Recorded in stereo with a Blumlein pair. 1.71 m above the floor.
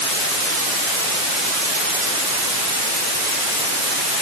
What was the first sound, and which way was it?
Only background noise.